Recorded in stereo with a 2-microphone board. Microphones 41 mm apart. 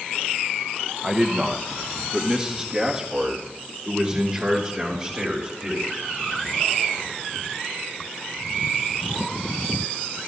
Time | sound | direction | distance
1.0 | a man speaking | 15° right (ahead or behind) | 0.9 m